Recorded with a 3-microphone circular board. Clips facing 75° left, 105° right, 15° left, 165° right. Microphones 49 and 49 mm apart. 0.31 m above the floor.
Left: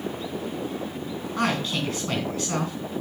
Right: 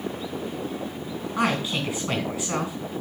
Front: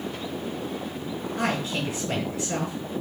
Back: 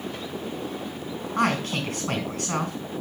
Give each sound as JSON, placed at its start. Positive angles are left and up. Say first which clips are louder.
{"t": 1.4, "sound": "a man speaking", "louder": "right 1 dB, back 4 dB", "azimuth_deg": 180, "distance_m": 3.5}